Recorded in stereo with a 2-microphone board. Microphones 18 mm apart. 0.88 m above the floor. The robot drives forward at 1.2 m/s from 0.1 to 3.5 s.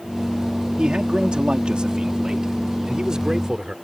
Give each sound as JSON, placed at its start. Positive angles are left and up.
{"t": 0.8, "sound": "a man speaking", "side_deg": -60}